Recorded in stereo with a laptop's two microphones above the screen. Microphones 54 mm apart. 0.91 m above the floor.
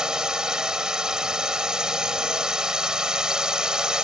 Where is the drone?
15° right (ahead or behind).